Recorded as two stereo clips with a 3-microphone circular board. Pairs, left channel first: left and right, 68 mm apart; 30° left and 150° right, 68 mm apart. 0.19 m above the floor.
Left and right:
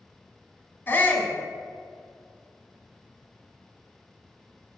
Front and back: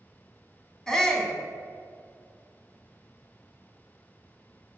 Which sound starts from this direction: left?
A shout, at 0.9 s.